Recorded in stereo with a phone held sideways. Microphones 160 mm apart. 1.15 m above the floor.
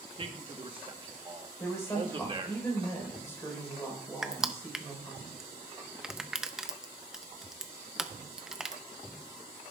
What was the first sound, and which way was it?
A man speaking, 35° right (ahead or behind).